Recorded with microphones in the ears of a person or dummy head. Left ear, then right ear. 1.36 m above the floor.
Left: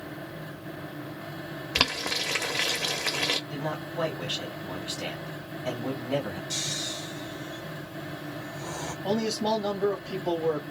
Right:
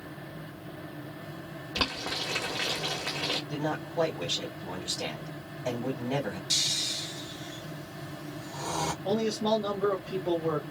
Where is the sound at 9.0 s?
30° left (ahead or behind), 1.0 m.